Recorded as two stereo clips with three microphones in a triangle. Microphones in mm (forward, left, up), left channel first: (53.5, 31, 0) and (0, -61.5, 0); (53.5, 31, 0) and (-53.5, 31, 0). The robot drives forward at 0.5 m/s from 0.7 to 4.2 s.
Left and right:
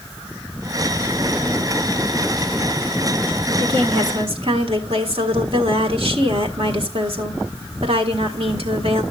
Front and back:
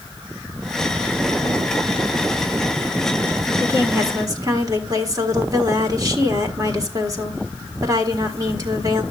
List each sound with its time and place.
3.6 s a woman speaking: 120° right, 1.5 m; by 9.0 s 130° right, 1.6 m